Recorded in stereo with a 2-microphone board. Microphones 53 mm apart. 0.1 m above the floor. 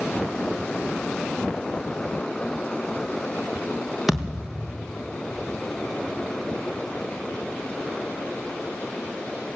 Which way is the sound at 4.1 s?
5° right (ahead or behind).